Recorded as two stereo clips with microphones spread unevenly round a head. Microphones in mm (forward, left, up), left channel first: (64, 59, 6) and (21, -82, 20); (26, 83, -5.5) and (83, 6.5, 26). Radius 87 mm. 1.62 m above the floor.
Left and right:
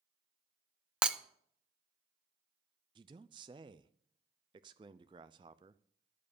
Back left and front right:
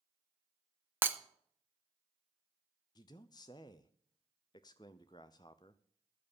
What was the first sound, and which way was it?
Breaking glass, 35° right.